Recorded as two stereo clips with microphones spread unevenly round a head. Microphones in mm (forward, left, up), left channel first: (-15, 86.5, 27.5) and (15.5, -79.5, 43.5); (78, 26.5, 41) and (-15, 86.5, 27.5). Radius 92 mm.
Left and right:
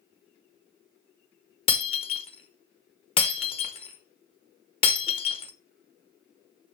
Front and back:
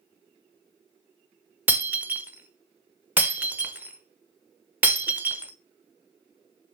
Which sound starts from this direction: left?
Breaking glass, at 1.7 s.